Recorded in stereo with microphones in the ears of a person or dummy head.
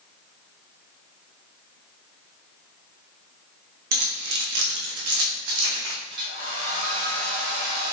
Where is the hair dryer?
60° right (ahead or behind), 2.0 m.